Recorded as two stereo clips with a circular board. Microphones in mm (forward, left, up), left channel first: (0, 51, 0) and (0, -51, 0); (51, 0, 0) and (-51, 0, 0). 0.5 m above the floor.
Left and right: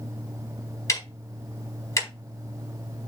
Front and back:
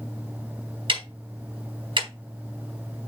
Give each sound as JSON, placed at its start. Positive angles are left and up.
{"t": 0.9, "sound": "ticking", "azimuth_deg": 150, "distance_m": 4.0}